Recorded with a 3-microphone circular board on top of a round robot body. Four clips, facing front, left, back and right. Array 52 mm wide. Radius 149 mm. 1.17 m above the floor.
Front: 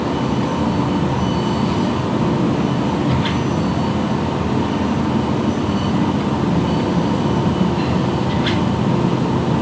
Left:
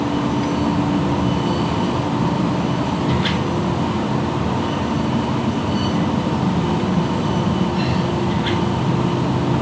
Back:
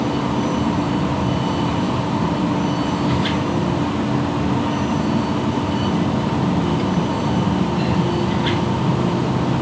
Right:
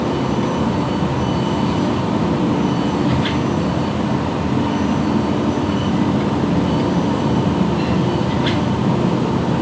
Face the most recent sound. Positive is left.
No sound to turn to.